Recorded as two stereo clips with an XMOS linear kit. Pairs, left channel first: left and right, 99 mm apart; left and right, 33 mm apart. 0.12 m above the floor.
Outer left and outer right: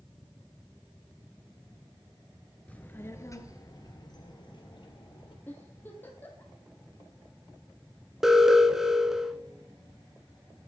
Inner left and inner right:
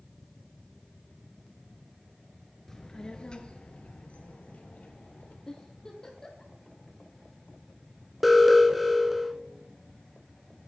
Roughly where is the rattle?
No rattle in this recording.